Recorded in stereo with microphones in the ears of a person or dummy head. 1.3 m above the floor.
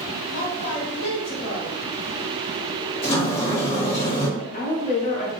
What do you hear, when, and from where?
0.3 s a woman speaking: 75° left (ahead or behind), 1.8 m
3.0 s a sliding door: 55° left (ahead or behind), 1.8 m
4.4 s a woman speaking: 35° left (ahead or behind), 0.9 m